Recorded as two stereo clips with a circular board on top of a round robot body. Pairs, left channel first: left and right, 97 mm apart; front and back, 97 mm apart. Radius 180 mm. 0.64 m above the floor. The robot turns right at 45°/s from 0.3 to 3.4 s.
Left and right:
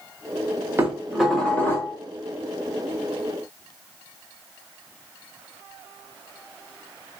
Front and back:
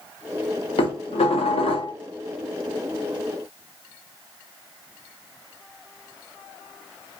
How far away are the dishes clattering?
About 1.3 m.